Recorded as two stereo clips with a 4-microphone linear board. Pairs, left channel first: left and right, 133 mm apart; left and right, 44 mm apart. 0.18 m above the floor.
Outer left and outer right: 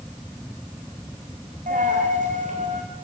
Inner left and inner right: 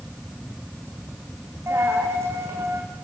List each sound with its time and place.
1.7 s a dropped coin: 80° right, 5.5 m